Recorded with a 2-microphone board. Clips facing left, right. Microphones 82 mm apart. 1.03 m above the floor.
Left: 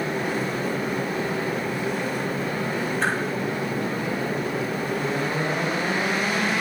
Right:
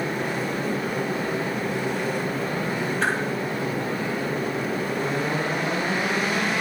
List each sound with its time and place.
3.0 s a whoosh: 5° left (ahead or behind), 10 m